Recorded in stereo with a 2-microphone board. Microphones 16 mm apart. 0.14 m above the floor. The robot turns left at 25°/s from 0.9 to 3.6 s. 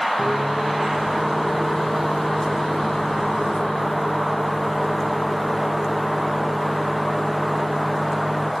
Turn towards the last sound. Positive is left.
turn(degrees=130)